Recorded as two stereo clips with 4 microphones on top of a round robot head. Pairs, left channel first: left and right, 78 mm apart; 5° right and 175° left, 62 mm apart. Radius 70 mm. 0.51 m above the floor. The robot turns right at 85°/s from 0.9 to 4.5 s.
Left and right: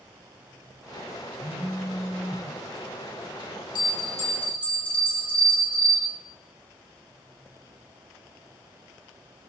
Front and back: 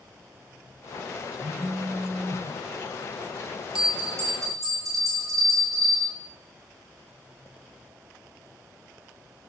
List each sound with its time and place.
1.4 s a phone buzzing: 145° left, 4 m; by 2.5 s 125° right, 4 m
3.8 s a bell: 100° left, 3.5 m; by 6.1 s 160° left, 3.5 m